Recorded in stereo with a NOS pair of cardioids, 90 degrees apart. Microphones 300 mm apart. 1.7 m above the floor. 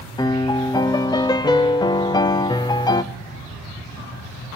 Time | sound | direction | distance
0.2 | a piano | 15° left | 0.6 m